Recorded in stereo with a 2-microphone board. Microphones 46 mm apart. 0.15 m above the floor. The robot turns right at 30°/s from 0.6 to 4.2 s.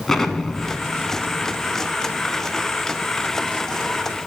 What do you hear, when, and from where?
0.1 s an explosion: 10° left (ahead or behind), 1.4 m; by 4.2 s 15° left (ahead or behind), 1.4 m